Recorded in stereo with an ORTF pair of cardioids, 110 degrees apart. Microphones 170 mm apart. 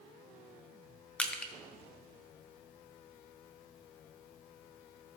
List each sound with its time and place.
1.2 s crushing: 5° left, 1.1 m